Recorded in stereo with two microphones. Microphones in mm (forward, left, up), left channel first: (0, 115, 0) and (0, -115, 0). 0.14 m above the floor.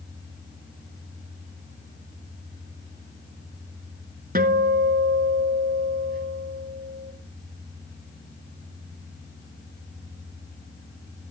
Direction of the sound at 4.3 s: 40° right (ahead or behind).